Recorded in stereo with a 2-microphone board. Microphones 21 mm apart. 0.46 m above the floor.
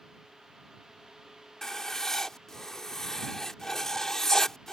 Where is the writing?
20° left (ahead or behind).